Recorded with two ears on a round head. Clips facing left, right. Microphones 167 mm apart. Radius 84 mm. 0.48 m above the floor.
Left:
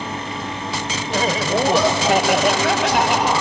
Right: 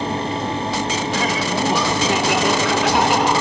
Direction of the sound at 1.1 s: 25° left (ahead or behind).